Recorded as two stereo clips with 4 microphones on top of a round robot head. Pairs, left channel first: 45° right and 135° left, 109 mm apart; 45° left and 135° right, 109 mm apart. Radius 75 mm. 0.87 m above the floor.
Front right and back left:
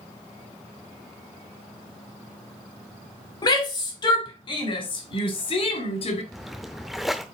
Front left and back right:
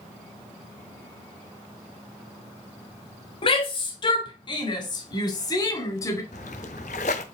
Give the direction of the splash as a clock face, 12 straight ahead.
11 o'clock.